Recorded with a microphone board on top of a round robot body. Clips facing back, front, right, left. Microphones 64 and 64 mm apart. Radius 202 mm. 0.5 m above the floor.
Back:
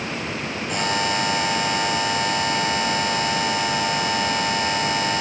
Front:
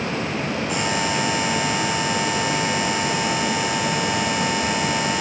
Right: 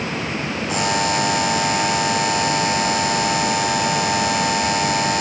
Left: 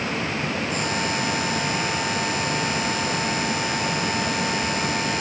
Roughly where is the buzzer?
Right.